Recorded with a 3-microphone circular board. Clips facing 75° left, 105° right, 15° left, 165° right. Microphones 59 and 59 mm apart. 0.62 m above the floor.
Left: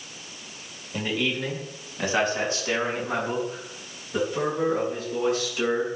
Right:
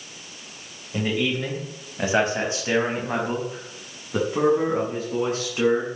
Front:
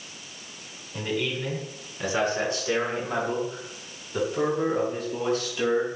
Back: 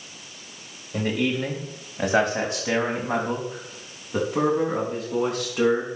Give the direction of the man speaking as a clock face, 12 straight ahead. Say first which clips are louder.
Right 3 dB, back 4 dB; 6 o'clock.